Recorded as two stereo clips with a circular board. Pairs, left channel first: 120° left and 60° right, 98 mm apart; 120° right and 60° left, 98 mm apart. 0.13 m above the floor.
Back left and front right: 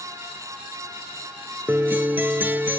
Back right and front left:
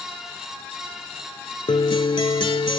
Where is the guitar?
125° right.